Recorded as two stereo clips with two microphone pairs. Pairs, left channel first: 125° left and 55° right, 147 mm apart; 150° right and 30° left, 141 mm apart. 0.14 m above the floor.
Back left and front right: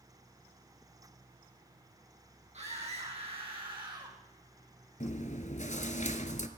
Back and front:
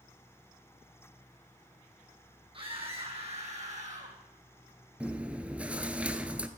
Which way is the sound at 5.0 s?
110° left.